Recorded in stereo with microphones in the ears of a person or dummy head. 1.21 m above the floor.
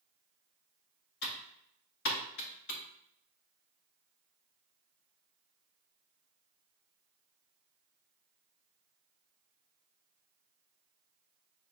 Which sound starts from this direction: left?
Typing on a keyboard, at 1.2 s.